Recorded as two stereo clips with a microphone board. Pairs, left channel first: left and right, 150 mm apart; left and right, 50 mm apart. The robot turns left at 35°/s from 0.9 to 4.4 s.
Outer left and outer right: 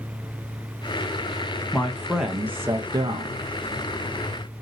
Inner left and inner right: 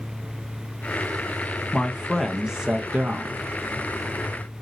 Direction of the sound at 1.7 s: 15° left.